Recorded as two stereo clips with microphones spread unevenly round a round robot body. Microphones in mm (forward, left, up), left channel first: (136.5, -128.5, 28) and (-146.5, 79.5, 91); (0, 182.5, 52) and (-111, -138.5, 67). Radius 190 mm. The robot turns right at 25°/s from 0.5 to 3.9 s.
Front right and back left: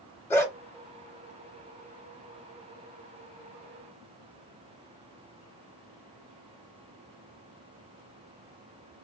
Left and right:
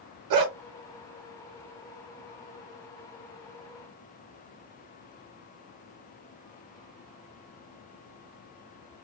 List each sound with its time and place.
0.3 s a dog barking: 125° right, 1.1 m